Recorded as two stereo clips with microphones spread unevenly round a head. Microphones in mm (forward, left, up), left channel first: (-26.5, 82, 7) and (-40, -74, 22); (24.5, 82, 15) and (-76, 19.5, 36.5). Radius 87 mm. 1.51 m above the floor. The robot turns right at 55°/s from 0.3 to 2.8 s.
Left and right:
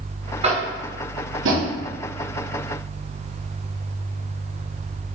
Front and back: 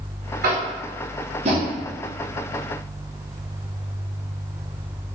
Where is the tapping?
150° right, 1.5 m; by 1.7 s 80° right, 1.5 m.